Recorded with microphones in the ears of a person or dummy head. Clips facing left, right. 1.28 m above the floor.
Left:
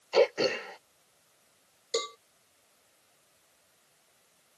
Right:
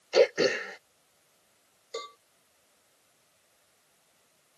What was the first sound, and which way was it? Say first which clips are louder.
Throat clearing: right 2 dB; 30° right (ahead or behind).